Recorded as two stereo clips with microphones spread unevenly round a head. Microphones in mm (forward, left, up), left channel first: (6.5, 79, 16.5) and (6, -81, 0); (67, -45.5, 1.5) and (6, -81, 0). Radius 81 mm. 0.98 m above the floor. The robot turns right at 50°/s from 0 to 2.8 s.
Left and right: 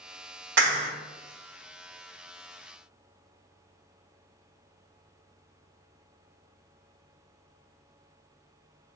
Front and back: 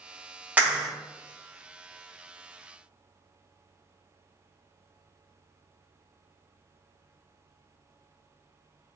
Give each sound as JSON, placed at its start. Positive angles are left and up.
{"t": 0.6, "sound": "a clap", "azimuth_deg": -80, "distance_m": 1.6}